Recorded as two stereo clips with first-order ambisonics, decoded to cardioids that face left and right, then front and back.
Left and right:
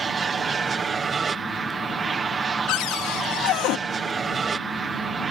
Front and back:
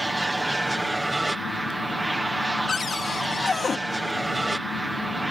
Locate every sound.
0.0 s an aircraft: 100° right
2.7 s a cupboard door: 70° left